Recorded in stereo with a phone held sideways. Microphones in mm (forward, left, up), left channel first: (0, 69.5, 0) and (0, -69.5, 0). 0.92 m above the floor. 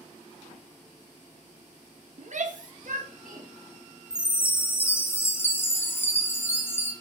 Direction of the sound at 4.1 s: 15° left (ahead or behind).